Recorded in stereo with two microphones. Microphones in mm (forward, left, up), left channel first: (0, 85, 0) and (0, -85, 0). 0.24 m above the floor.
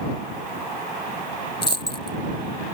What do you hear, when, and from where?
1.6 s a dropped coin: 80° left